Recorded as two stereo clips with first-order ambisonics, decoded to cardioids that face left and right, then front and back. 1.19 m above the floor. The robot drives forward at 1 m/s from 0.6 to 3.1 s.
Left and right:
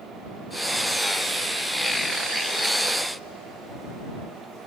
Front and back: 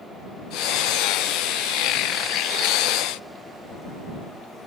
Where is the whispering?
I don't hear whispering.